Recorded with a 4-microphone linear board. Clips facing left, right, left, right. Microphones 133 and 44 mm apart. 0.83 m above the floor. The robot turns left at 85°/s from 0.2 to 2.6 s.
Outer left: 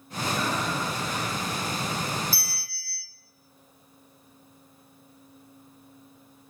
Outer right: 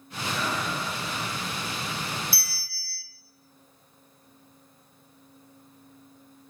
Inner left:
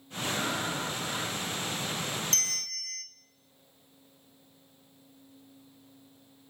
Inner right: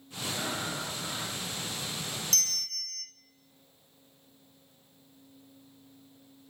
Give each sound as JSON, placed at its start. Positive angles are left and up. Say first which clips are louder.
{"t": 0.3, "sound": "breathing", "louder": "outer left 1 dB, inner left 2 dB", "azimuth_deg": 180, "distance_m": 7.0}
{"t": 2.3, "sound": "a bell", "louder": "outer left 2 dB, even", "side_deg": 40, "distance_m": 0.7}